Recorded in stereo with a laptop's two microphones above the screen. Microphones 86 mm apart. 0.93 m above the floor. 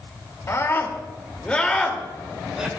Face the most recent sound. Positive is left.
turn(degrees=-10)  # may be behind; listen again after turning